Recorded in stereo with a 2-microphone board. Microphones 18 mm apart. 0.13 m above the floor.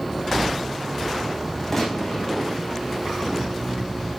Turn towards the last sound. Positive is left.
turn(degrees=15)  # may be behind; listen again after turning